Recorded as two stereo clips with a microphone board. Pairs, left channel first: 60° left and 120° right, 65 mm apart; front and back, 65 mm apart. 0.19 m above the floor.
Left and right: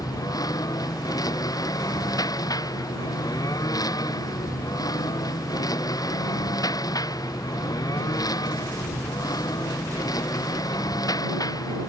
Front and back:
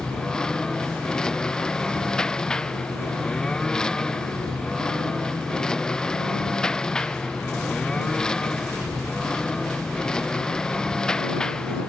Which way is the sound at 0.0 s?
80° left.